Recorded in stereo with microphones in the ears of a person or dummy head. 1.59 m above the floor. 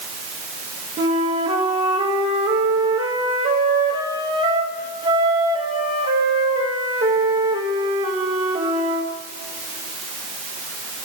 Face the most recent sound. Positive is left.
turn(degrees=-25)  # may be behind; listen again after turning